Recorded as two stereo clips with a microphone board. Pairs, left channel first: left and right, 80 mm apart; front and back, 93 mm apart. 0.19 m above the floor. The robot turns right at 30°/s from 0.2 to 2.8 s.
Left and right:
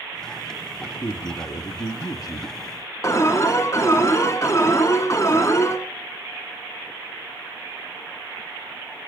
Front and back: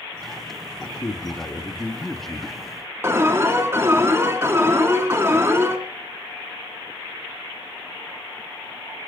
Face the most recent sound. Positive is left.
turn(degrees=125)